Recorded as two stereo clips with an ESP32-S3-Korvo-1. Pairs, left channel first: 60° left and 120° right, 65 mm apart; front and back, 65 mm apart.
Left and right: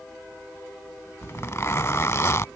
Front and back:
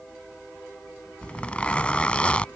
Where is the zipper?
60° left.